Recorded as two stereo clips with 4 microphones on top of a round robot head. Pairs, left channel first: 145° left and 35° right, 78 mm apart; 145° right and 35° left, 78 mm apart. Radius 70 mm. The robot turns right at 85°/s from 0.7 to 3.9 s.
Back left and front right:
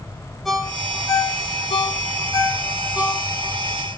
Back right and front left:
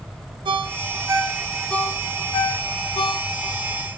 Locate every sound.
0.5 s a ringtone: 55° left, 1.5 m; by 3.6 s 60° right, 1.5 m